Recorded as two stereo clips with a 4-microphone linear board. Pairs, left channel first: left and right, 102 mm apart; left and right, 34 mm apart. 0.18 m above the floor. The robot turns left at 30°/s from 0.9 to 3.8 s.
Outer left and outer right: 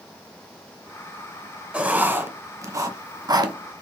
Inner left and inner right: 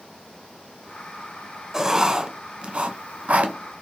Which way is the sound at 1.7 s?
15° right (ahead or behind).